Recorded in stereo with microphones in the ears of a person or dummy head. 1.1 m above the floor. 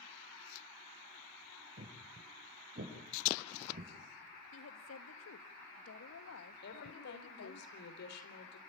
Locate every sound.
1.8 s footsteps: 50° right (ahead or behind), 7.5 m; by 3.9 s 45° right (ahead or behind), 8.5 m
4.5 s a woman speaking: 75° left (ahead or behind), 1.6 m
6.6 s a woman speaking: 65° left (ahead or behind), 3 m